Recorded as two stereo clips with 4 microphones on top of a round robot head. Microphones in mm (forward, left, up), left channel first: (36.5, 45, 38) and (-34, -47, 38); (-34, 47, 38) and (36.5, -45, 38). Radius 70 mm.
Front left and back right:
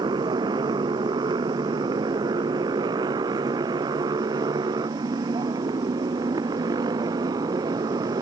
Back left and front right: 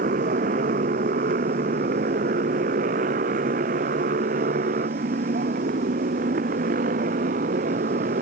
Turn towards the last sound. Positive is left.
turn(degrees=-70)